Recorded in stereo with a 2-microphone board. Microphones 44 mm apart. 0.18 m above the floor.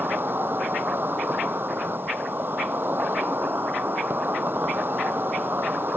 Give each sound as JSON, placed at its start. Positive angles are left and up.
{"t": 0.0, "sound": "an insect", "side_deg": -55}